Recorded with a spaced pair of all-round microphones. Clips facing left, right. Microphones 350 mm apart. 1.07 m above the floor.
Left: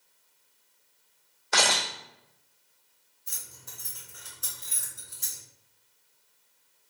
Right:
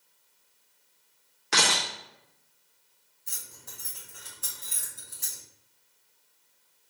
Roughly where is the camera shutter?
Right.